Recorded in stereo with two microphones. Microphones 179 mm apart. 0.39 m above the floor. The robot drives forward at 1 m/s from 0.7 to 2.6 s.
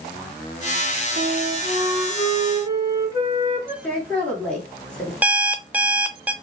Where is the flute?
75° right (ahead or behind), 0.7 m; by 3.7 s 20° right (ahead or behind), 1.7 m.